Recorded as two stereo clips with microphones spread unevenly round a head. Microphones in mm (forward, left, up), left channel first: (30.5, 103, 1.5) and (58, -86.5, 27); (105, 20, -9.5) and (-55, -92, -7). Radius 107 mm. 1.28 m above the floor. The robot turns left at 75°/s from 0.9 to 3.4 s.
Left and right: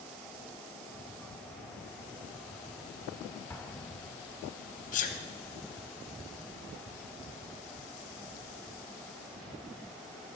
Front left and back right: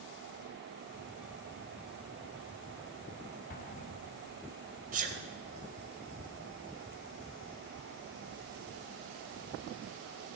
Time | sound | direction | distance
3.5 | an explosion | 10° left | 0.6 m
4.9 | a sneeze | 155° left | 0.8 m